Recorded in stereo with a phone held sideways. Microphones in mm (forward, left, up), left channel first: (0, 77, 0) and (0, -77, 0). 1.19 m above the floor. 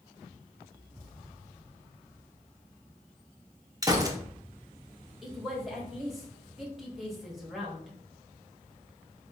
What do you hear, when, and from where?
3.8 s a gunshot: 25° right (ahead or behind), 0.6 m
5.2 s a woman speaking: centre (ahead or behind), 1.3 m